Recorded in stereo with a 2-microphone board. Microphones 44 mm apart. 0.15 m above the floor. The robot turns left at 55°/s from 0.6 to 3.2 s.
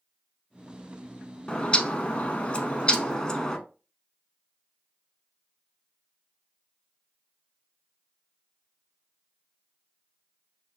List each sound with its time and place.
1.5 s a bird: 130° left, 0.7 m; by 3.6 s 35° left, 0.7 m